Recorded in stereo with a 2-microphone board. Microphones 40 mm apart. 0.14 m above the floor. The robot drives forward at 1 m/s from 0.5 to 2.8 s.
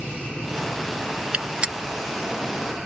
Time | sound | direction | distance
1.3 | a gunshot | 30° right (ahead or behind) | ?